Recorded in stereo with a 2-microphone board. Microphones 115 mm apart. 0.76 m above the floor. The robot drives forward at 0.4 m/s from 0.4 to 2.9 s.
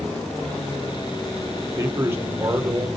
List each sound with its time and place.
1.6 s a man speaking: 25° right (ahead or behind), 1.9 m; by 2.9 s 20° right (ahead or behind), 2.5 m